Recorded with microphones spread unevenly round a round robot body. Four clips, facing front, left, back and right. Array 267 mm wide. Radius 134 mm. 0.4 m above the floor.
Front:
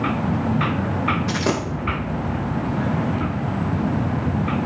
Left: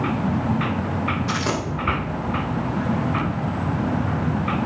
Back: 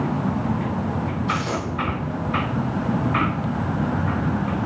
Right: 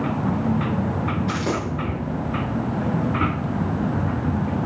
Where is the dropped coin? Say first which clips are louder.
Even, front 2 dB; 5° right, 3.5 m.